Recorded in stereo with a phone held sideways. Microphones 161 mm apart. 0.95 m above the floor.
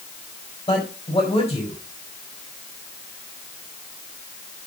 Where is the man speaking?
30° left (ahead or behind), 5 m.